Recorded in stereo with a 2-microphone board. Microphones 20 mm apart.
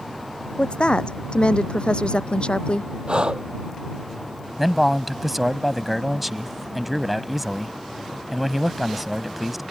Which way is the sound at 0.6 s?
60° left (ahead or behind).